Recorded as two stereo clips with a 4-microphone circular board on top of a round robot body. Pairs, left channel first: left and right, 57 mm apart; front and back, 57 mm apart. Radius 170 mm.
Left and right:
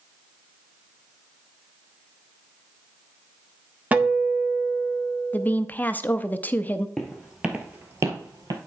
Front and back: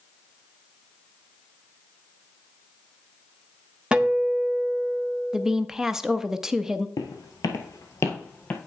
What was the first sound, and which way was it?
A guitar, 125° right.